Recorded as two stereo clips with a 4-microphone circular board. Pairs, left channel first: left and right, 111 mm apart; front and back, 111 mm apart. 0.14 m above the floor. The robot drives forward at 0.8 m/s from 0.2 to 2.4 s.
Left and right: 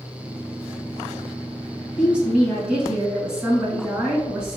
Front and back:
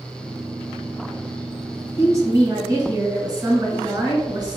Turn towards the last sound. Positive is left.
turn(degrees=-165)